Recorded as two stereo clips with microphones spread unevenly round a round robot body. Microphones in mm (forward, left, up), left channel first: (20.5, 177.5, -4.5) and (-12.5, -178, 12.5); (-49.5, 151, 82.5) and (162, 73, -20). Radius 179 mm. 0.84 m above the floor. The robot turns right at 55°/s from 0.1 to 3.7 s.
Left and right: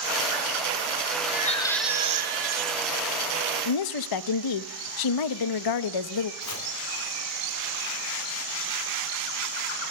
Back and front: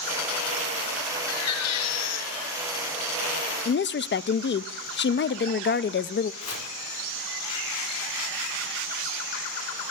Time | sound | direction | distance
1.3 | a baby crying | 145° left | 1.6 m
3.6 | a woman speaking | 95° left | 0.6 m
6.4 | chopping | 135° left | 2.5 m